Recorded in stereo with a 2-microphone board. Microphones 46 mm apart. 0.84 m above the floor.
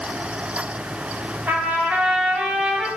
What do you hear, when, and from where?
1.5 s a trumpet: 45° right (ahead or behind), 1.6 m